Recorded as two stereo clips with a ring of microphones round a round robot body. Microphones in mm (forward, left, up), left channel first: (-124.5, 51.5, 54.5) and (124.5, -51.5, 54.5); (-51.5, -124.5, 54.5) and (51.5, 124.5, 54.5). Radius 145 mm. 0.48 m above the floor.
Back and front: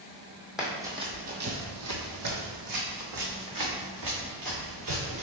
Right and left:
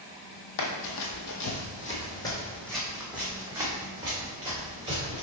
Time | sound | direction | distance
0.6 | running footsteps | 110° right | 1.0 m